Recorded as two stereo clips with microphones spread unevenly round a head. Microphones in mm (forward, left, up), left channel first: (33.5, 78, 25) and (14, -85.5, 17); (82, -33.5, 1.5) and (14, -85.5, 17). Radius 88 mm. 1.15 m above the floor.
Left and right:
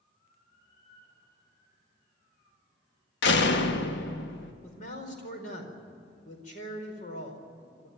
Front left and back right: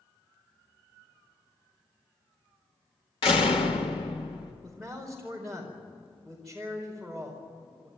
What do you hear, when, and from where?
3.2 s a door slam: 75° left, 1.4 m
4.6 s a man speaking: 130° left, 4.5 m